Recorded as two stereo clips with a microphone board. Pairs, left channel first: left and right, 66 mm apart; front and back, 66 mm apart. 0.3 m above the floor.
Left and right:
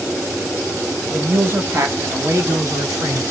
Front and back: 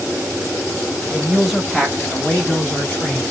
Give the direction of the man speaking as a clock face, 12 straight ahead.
4 o'clock.